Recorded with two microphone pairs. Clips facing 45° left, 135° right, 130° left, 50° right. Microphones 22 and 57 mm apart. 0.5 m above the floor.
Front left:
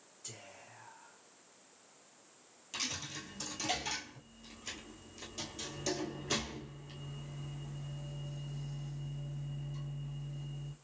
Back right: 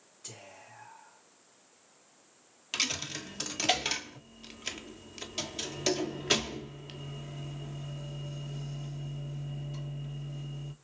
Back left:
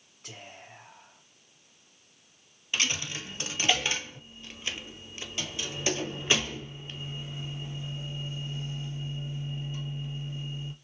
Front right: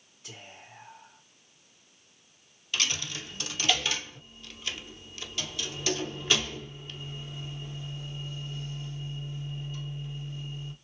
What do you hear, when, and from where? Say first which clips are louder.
0.2 s whispering: back right 3 dB, back left 1 dB; 160° left, 3 m
2.7 s a dropped coin: back right 7 dB, back left 1 dB; 165° right, 0.9 m